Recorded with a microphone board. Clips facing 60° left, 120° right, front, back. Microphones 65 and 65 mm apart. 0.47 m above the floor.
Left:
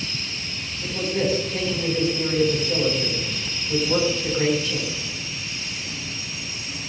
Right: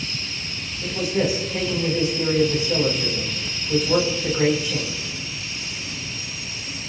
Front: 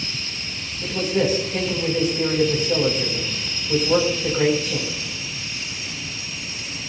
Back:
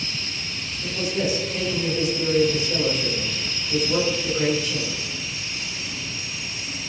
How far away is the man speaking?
About 3.5 m.